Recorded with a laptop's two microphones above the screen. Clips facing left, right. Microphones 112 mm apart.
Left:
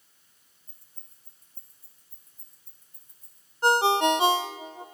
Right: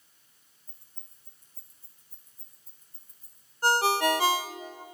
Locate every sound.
0.7 s keys jangling: 50° left (ahead or behind), 4.5 m; by 3.5 s 70° left (ahead or behind), 4 m
3.6 s a ringtone: 20° left (ahead or behind), 0.5 m